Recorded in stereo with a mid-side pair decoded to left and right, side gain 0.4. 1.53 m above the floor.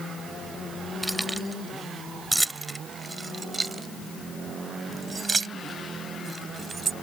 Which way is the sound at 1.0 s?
Straight ahead.